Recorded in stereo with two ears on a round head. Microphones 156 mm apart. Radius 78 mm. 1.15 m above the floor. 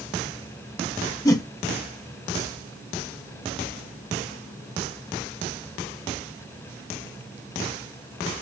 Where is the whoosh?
20° left (ahead or behind), 0.7 m.